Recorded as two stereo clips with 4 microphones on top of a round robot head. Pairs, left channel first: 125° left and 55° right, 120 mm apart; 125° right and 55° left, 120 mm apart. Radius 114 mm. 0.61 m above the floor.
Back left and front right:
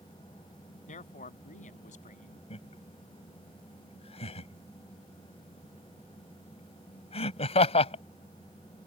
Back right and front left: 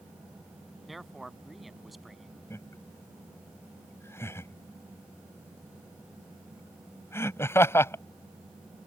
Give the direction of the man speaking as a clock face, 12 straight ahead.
7 o'clock.